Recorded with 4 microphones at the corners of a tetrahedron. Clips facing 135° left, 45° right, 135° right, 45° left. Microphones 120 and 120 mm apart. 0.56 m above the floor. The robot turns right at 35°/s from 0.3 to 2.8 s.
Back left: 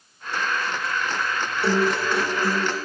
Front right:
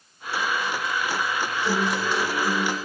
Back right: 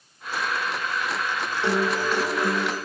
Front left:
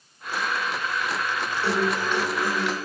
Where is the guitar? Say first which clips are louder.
Back left 5 dB, back right 1 dB; 155° left, 6 m; by 2.8 s 165° right, 6 m.